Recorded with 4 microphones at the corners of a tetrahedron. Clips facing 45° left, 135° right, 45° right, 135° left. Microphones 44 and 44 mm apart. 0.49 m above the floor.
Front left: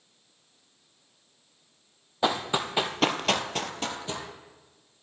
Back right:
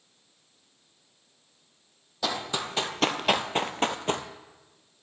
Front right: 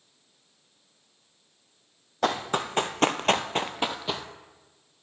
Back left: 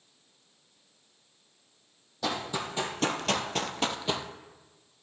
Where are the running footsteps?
15° right, 0.9 m; by 4.3 s 135° right, 0.7 m.